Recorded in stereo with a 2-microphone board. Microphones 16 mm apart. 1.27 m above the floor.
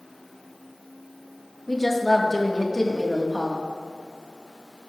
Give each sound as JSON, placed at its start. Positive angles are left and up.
{"t": 1.7, "sound": "a woman speaking", "side_deg": 15, "distance_m": 1.4}